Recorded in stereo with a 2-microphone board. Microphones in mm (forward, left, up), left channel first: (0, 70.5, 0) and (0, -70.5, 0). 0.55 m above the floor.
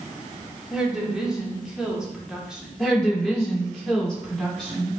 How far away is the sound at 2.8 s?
About 1.7 m.